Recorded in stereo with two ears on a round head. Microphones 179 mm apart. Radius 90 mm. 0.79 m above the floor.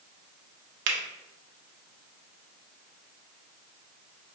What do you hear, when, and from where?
0.9 s a finger snap: 65° right (ahead or behind), 0.7 m